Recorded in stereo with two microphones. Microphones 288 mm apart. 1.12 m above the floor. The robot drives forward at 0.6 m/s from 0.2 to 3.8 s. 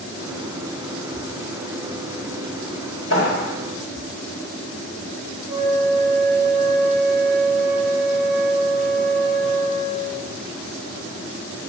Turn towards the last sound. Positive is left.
turn(degrees=-5)  # may be behind; listen again after turning